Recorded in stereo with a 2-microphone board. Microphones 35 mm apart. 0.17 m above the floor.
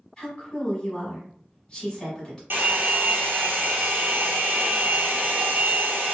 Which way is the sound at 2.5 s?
80° right.